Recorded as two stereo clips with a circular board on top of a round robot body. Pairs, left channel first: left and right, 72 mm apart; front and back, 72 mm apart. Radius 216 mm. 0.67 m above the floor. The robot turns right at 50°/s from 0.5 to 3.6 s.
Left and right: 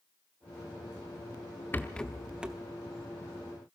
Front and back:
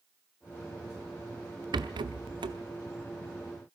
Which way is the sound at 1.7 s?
155° left.